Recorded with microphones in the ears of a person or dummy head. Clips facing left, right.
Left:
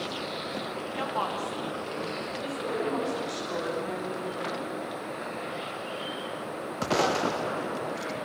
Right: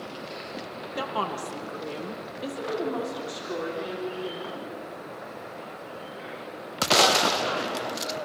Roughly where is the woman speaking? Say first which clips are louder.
Right 2 dB; right.